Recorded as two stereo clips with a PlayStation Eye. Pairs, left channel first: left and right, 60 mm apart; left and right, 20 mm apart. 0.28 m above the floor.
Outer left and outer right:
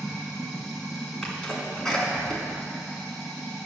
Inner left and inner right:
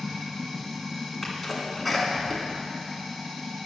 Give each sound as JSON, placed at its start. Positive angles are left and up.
{"t": 0.0, "sound": "running water", "side_deg": 15, "distance_m": 2.0}
{"t": 1.2, "sound": "a sneeze", "side_deg": 10, "distance_m": 2.0}